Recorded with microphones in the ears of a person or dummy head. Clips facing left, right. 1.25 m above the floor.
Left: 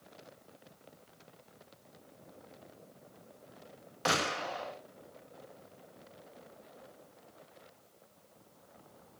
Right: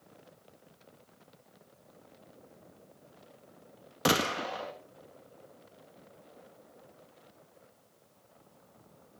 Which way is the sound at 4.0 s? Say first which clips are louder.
Right 5 dB; 45° right (ahead or behind).